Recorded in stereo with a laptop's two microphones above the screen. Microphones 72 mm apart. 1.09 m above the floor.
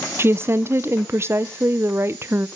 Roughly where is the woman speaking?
Right.